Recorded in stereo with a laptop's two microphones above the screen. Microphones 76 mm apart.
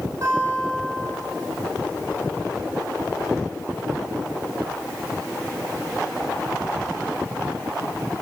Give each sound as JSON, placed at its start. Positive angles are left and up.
{"t": 0.2, "sound": "a guitar", "side_deg": -40, "distance_m": 8.0}